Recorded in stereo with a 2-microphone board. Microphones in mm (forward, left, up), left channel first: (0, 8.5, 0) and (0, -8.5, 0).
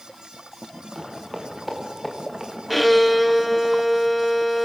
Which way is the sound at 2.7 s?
5° left (ahead or behind).